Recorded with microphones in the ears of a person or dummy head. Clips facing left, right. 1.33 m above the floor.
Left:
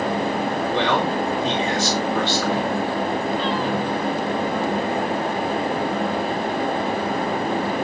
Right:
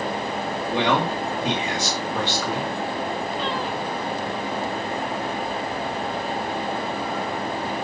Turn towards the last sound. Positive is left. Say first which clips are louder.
# right 1 dB
turn(degrees=-10)  # may be behind; listen again after turning